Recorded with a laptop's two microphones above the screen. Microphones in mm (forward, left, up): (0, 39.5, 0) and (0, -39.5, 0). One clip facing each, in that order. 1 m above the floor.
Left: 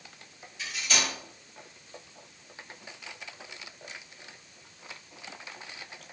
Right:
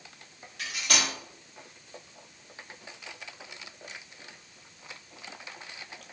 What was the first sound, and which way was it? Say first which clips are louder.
Cutlery clinking: right 1 dB; 65° right (ahead or behind).